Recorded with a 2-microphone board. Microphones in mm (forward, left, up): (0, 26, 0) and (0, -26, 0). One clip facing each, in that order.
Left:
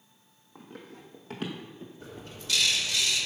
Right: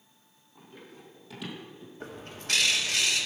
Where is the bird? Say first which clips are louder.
Right 6 dB; 50° right (ahead or behind), 1.5 m.